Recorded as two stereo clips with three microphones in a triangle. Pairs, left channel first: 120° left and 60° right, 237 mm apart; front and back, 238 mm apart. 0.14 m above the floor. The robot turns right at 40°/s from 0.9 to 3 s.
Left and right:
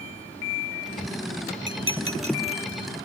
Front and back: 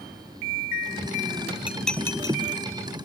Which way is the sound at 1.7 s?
95° right.